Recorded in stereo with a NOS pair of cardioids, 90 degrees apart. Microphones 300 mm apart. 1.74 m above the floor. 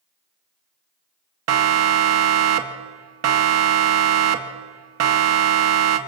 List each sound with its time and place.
1.5 s a siren: 60° right, 2.5 m